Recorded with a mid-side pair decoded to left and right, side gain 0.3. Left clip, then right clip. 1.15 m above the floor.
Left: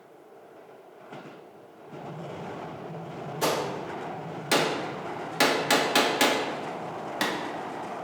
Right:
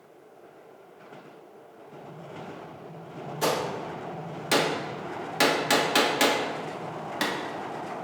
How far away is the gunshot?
About 1.3 m.